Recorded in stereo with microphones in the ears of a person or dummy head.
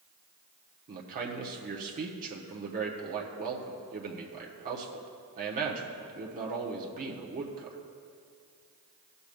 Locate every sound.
0.9 s a man speaking: 45° right (ahead or behind), 1.1 m